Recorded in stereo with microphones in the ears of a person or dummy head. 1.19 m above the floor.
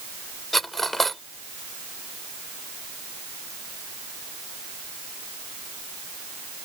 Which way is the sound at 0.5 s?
5° left (ahead or behind).